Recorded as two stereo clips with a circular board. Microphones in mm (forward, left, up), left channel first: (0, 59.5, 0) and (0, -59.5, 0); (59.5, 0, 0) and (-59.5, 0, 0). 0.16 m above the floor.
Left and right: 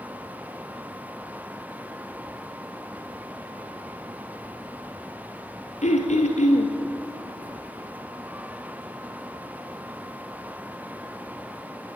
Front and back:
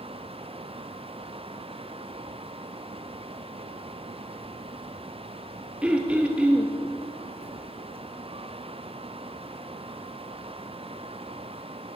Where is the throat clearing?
100° left, 2 m.